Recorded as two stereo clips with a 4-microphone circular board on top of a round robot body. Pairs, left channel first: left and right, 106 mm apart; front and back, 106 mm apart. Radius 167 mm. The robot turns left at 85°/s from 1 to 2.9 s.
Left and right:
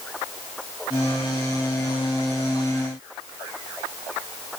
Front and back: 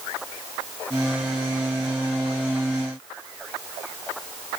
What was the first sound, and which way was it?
Only background noise.